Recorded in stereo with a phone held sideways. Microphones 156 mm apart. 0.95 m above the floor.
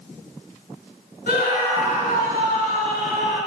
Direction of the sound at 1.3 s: 75° left (ahead or behind).